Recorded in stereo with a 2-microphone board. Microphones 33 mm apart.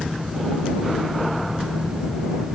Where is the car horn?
No car horn in this recording.